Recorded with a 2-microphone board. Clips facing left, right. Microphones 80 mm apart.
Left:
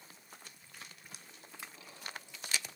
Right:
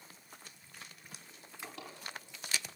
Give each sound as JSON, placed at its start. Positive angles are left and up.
{"t": 1.6, "sound": "a drawer", "side_deg": -70, "distance_m": 4.0}